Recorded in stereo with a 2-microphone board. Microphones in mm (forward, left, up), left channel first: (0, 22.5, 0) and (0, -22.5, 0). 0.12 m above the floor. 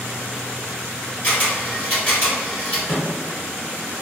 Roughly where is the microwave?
Centre.